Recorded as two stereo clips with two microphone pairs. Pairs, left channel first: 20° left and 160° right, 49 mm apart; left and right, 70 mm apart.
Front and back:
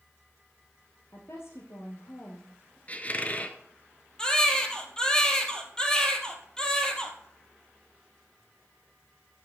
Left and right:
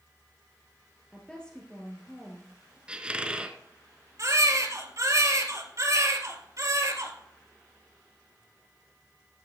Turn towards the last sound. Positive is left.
turn(degrees=-55)